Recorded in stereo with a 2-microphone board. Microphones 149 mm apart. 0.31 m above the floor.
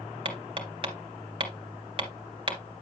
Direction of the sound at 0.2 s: 35° right (ahead or behind).